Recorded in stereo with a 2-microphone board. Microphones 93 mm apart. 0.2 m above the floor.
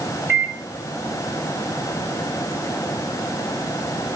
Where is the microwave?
25° right (ahead or behind), 1.8 m.